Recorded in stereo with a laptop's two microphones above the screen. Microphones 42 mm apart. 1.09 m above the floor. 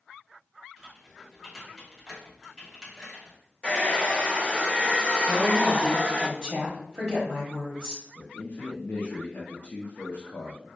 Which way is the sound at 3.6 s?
25° left (ahead or behind).